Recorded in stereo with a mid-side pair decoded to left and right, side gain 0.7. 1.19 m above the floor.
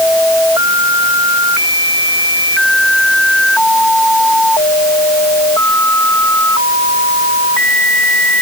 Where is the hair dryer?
No hair dryer in this recording.